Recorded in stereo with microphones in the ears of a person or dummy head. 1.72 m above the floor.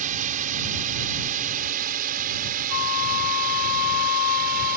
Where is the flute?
65° left (ahead or behind).